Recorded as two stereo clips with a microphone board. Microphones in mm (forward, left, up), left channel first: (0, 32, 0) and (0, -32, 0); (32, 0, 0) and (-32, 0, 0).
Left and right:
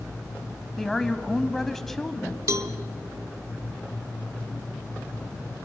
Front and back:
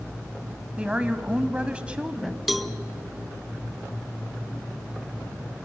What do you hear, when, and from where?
0.8 s a woman speaking: 165° left, 1.0 m
2.5 s a cowbell: 95° right, 0.8 m